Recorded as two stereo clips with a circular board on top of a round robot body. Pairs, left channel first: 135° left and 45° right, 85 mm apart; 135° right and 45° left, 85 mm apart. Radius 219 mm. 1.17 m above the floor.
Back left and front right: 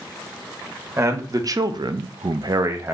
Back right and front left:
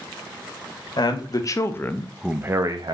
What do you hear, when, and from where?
1.0 s a man speaking: 100° right, 1.1 m; by 2.9 s 15° left, 0.8 m